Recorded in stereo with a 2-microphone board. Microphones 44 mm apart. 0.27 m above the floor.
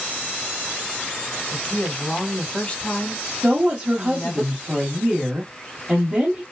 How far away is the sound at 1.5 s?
About 1.3 m.